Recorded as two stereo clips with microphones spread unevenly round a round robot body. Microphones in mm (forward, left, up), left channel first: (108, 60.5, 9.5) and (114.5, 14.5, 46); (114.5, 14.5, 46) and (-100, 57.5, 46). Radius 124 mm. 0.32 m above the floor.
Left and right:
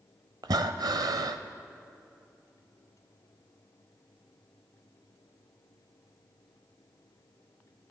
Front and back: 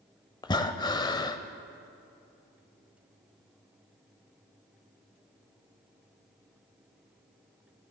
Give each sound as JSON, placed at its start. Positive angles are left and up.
{"t": 0.4, "sound": "breathing", "azimuth_deg": -80, "distance_m": 0.5}